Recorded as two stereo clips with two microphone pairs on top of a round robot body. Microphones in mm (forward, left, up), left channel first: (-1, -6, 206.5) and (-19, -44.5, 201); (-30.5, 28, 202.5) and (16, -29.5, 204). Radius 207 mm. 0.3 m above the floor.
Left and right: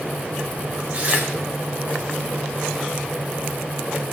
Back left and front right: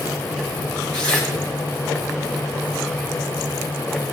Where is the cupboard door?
I don't hear a cupboard door.